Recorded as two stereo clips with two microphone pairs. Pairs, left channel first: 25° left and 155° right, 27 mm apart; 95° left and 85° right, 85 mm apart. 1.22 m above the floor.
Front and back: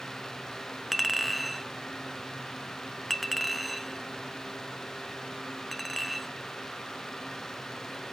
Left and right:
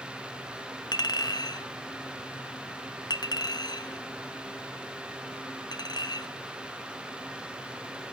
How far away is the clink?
About 0.6 m.